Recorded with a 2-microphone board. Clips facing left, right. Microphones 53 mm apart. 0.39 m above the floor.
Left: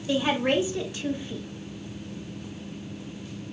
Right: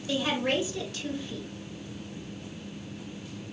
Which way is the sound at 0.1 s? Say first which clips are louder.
Left 4 dB; 20° left (ahead or behind).